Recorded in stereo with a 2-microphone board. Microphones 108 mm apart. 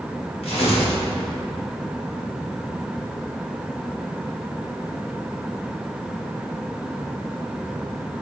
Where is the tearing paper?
70° left (ahead or behind), 1.6 m.